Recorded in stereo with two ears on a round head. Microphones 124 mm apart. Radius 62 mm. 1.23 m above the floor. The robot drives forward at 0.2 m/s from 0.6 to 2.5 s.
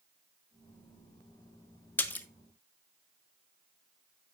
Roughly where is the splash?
Centre.